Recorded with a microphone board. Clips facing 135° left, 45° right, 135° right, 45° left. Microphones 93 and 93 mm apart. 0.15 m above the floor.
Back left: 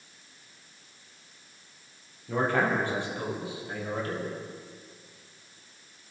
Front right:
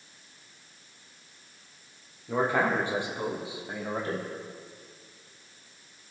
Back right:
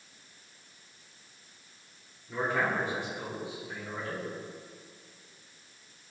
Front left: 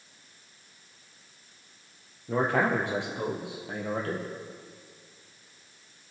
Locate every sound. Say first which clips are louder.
2.3 s a man speaking: even, front left 5 dB; 35° left, 3.5 m; by 4.3 s 20° left, 4 m